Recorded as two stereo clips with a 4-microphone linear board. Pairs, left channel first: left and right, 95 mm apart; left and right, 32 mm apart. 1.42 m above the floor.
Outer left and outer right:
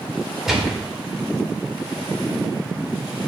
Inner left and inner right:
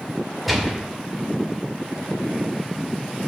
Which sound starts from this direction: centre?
A gunshot, at 0.5 s.